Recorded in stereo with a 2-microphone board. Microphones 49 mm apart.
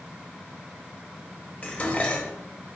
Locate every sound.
1.6 s dishes clattering: 25° left (ahead or behind), 0.8 m